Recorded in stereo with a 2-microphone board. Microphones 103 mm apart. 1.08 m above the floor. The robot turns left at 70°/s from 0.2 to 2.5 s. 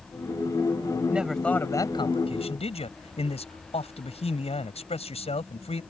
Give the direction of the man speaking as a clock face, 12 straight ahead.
6 o'clock.